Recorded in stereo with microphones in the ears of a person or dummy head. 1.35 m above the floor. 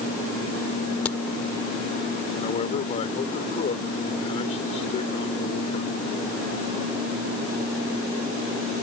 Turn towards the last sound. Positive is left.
turn(degrees=40)  # may be behind; listen again after turning